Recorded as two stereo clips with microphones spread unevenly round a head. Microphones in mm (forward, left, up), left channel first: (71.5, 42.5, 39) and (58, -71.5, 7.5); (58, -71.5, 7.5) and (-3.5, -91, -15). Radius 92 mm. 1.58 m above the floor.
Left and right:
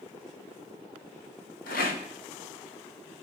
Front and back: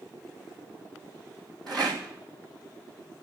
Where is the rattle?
105° left, 2.0 m.